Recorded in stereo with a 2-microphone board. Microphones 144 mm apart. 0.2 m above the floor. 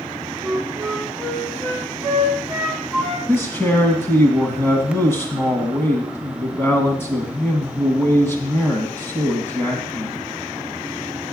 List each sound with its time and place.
0.4 s a flute: 5° left (ahead or behind), 1.9 m
3.3 s a man speaking: 15° left (ahead or behind), 1.6 m